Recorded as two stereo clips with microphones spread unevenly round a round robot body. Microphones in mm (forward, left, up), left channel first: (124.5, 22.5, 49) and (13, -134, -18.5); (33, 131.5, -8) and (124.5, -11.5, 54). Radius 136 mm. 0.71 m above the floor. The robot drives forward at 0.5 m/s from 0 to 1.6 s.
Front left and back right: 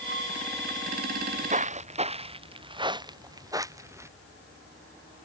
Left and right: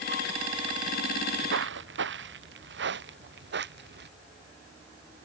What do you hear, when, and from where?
1.1 s footsteps: 75° right; by 4.1 s 50° right